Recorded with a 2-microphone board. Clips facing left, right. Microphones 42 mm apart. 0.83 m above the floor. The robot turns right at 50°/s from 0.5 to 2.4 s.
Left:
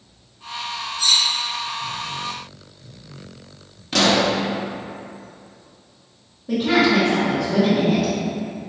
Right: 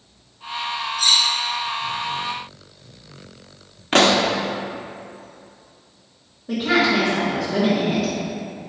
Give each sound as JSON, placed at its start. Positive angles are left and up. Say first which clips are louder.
{"t": 1.0, "sound": "cutlery clinking", "louder": "right 1 dB", "side_deg": -75, "distance_m": 1.4}
{"t": 3.9, "sound": "a pop", "louder": "right 2 dB", "side_deg": -45, "distance_m": 0.7}
{"t": 6.5, "sound": "a woman speaking", "louder": "left 1 dB", "side_deg": 0, "distance_m": 1.6}